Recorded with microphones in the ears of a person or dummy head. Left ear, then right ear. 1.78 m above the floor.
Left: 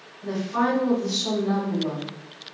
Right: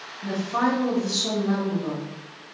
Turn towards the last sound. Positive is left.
turn(degrees=-10)  # may be behind; listen again after turning